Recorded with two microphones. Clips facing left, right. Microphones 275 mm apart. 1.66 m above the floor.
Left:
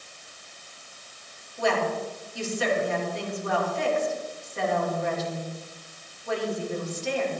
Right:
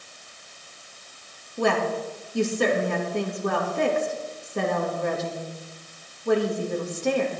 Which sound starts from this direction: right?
A woman speaking, at 1.6 s.